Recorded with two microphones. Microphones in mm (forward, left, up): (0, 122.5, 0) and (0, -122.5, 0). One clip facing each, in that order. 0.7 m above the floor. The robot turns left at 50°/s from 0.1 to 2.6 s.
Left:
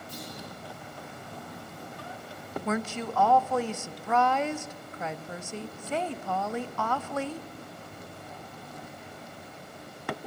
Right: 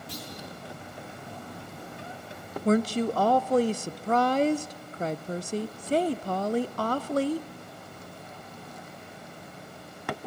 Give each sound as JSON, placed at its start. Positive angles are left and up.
{"t": 0.1, "sound": "a clunk", "side_deg": -85, "distance_m": 10.0}
{"t": 2.6, "sound": "a woman speaking", "side_deg": -40, "distance_m": 0.5}